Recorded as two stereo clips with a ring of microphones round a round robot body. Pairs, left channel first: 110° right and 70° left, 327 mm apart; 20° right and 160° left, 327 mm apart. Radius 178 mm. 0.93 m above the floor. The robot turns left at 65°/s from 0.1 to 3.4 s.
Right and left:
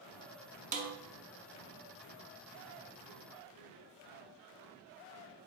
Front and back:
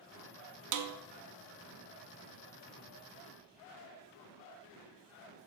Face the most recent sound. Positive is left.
turn(degrees=-40)